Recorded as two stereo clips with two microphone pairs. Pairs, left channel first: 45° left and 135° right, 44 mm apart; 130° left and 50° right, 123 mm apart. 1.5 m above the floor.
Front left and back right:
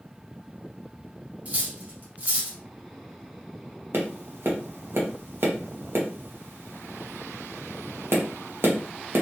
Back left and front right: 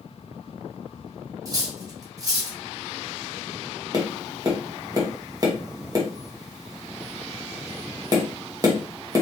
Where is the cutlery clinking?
95° right, 0.9 m.